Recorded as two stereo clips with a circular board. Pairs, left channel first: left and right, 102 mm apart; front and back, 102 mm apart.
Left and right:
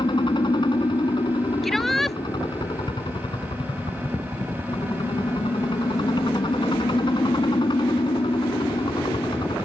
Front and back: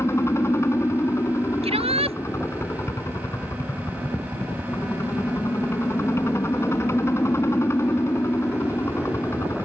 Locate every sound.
0.0 s a helicopter: 60° left
1.6 s a shout: straight behind